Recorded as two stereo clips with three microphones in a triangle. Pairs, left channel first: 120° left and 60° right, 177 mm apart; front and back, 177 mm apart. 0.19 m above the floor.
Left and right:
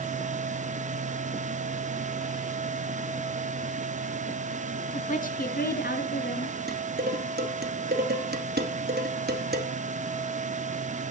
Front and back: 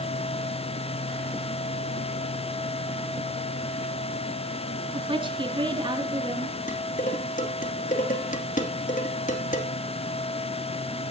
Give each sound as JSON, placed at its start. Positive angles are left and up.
{"t": 4.9, "sound": "a woman speaking", "azimuth_deg": 135, "distance_m": 1.2}
{"t": 6.7, "sound": "dishes clattering", "azimuth_deg": -40, "distance_m": 2.5}